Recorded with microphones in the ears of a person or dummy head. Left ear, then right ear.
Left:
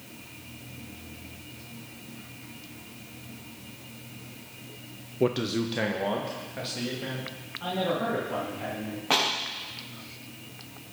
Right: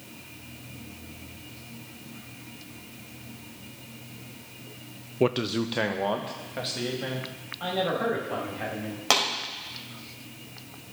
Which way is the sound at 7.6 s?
75° right (ahead or behind).